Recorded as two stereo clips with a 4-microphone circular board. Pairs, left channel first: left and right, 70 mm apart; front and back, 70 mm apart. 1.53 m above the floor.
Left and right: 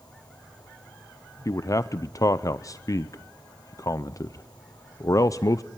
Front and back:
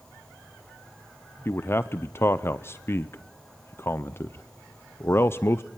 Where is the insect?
75° left, 8.5 m.